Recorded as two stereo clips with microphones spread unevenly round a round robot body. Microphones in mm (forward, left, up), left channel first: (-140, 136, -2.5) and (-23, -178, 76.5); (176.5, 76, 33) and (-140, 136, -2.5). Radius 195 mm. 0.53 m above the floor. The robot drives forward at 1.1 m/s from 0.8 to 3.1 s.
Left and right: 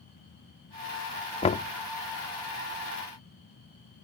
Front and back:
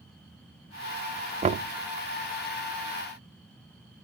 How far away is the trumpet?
No trumpet in this recording.